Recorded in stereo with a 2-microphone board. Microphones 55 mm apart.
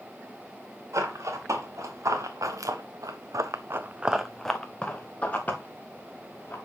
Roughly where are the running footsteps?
Right.